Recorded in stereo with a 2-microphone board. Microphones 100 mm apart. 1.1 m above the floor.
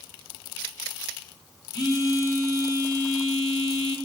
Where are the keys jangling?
No keys jangling in this recording.